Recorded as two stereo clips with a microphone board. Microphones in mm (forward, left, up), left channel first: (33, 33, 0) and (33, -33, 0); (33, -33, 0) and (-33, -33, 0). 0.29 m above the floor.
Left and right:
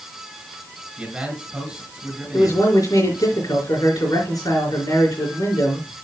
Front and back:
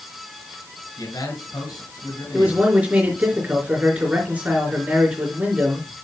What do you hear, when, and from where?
1.0 s a man speaking: 10° right, 5.5 m
2.3 s a man speaking: 110° left, 4.5 m